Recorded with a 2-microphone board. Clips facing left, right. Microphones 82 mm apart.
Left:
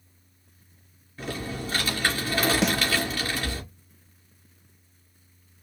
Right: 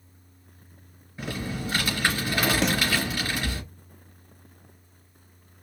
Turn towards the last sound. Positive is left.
turn(degrees=0)  # may be behind; listen again after turning